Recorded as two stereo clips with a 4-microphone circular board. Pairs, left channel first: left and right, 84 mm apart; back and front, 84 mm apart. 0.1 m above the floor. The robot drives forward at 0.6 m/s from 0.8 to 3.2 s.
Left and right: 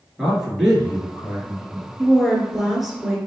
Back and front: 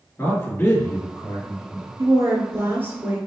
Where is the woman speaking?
5° right, 1.6 m; by 3.2 s 10° right, 1.2 m.